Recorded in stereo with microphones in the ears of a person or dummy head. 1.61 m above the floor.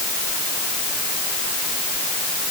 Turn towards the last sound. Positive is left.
No sound to turn to.